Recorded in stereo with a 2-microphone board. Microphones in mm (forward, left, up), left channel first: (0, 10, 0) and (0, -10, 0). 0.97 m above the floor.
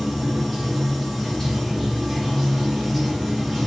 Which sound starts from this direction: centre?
Running water, at 0.0 s.